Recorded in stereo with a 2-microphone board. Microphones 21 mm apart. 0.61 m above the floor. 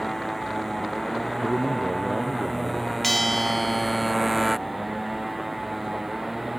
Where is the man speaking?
40° right (ahead or behind).